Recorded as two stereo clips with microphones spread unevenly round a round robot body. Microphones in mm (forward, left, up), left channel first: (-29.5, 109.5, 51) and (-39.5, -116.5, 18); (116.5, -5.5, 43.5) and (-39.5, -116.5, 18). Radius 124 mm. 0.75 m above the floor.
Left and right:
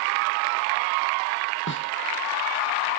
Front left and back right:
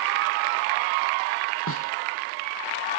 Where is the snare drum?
40° left.